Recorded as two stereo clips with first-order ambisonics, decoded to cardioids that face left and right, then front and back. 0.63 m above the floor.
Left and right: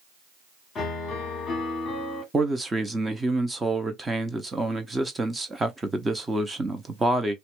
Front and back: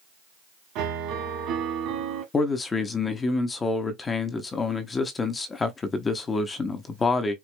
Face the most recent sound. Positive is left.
turn(degrees=-30)